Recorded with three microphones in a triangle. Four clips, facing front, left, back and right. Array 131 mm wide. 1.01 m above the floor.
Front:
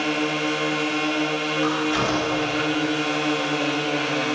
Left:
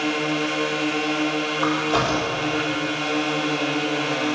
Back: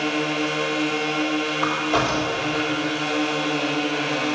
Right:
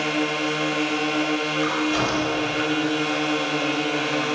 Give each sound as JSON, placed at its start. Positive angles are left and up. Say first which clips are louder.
{"t": 1.6, "sound": "a crack", "louder": "left 4 dB, even", "azimuth_deg": 140, "distance_m": 3.5}